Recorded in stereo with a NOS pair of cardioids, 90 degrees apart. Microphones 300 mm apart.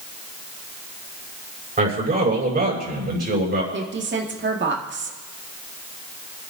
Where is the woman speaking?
40° right, 2.5 m.